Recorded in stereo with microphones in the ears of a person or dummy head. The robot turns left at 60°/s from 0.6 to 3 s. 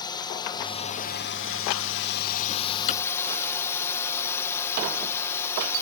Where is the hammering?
35° left (ahead or behind); by 3.0 s 30° left (ahead or behind).